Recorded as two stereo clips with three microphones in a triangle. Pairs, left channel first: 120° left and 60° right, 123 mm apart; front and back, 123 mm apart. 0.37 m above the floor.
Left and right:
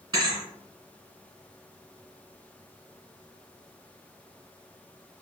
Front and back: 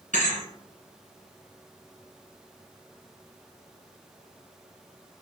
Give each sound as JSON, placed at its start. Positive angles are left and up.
{"t": 0.1, "sound": "a thud", "azimuth_deg": 0, "distance_m": 1.9}